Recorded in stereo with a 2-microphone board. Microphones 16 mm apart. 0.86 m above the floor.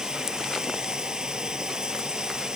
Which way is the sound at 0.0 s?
85° right.